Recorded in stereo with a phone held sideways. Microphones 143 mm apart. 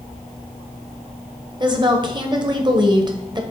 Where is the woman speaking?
35° right (ahead or behind), 1.1 m.